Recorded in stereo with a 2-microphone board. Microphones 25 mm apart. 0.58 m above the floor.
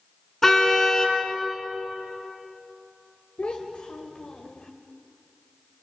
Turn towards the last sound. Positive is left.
turn(degrees=50)  # may be behind; listen again after turning